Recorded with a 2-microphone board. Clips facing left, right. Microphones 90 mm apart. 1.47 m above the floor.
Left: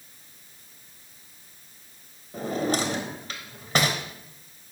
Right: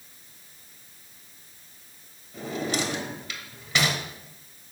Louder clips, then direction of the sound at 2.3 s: Left 3 dB; 45° left (ahead or behind).